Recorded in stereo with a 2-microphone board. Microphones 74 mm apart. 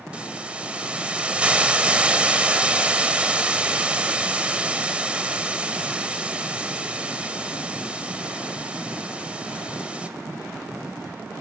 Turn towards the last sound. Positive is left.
turn(degrees=-15)  # may be behind; listen again after turning